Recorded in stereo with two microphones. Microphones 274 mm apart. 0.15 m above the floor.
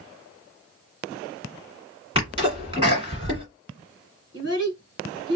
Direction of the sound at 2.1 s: 20° right (ahead or behind).